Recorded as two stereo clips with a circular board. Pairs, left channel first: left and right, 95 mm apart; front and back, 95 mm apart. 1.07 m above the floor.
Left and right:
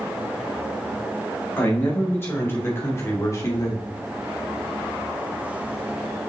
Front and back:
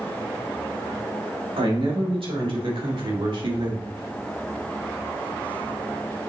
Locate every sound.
1.6 s a man speaking: 160° left, 3.5 m; by 3.9 s 140° left, 1.6 m